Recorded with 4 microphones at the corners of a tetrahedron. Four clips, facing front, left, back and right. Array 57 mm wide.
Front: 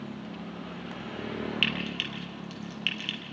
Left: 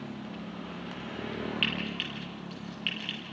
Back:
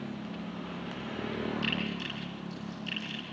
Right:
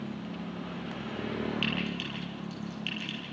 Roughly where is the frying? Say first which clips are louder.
Left 1 dB, front 4 dB; ahead.